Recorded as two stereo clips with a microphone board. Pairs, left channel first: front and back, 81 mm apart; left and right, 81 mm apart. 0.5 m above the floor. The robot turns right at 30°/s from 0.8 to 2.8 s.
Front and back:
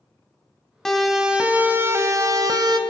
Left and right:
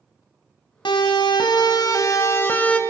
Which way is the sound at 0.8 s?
85° left.